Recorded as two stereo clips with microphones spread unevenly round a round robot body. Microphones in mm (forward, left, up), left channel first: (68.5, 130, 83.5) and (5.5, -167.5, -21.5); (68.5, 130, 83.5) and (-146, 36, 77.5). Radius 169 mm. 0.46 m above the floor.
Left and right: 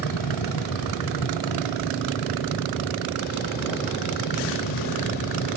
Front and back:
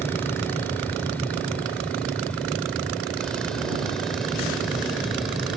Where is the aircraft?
105° left; by 5.6 s 115° left.